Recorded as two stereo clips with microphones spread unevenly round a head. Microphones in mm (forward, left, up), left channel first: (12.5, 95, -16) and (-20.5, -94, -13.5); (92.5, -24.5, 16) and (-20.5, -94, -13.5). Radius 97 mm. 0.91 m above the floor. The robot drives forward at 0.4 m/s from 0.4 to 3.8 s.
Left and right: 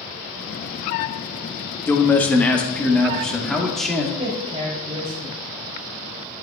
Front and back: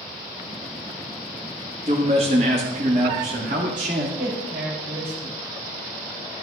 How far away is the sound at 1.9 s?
About 1.0 m.